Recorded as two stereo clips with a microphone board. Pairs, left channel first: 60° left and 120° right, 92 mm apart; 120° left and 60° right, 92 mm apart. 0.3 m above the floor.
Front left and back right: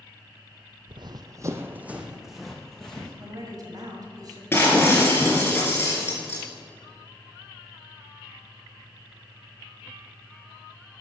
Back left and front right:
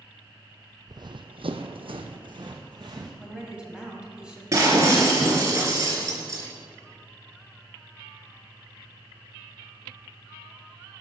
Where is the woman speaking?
135° right, 1.9 m.